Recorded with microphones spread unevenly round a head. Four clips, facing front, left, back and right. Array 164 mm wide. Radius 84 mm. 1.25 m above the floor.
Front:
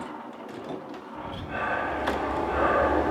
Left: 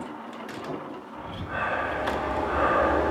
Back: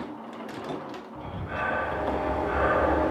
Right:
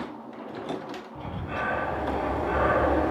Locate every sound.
1.1 s breathing: 90° right, 8 m